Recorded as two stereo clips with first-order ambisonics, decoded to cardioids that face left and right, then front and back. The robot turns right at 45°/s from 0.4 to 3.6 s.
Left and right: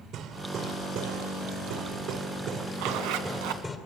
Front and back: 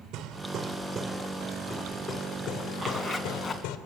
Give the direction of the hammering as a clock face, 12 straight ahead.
5 o'clock.